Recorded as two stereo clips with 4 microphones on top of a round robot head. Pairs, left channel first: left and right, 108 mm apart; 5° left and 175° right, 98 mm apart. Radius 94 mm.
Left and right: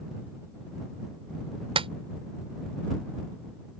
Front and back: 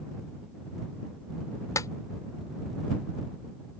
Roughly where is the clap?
Ahead right.